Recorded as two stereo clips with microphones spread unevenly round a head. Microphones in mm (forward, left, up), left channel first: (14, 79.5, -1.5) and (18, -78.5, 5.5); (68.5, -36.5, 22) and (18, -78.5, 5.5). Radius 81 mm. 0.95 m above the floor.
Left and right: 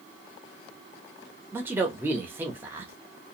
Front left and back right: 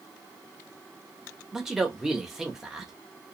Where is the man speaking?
150° right, 0.8 m.